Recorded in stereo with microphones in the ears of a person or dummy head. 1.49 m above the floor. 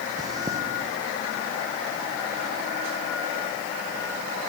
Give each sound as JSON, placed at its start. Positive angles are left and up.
{"t": 0.2, "sound": "chewing", "side_deg": -25, "distance_m": 0.6}